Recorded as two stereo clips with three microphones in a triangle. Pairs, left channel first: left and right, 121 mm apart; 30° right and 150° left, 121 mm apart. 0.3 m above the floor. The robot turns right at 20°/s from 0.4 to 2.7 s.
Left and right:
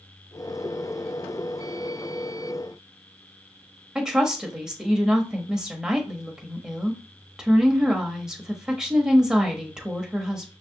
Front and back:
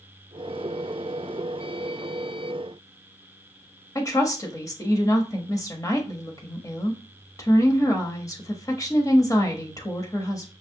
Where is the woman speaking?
10° right, 1.0 m.